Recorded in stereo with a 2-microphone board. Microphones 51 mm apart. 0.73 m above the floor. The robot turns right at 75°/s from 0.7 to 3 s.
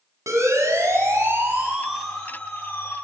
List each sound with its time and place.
0.3 s a siren: 80° right, 8 m; by 2.9 s 60° left (ahead or behind), 6.5 m